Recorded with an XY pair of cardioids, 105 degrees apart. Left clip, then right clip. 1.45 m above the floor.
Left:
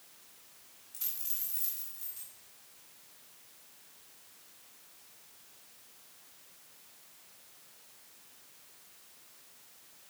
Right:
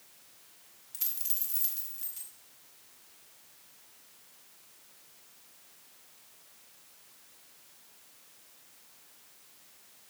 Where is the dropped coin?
40° right, 2.5 m.